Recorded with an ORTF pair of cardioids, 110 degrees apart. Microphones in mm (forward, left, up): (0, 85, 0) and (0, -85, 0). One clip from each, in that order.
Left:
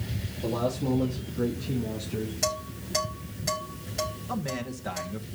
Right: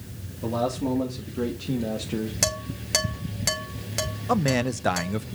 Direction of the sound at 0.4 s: 40° right.